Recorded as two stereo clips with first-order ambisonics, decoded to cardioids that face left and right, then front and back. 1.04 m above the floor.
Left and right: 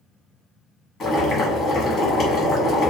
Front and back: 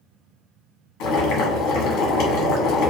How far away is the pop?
I don't hear a pop.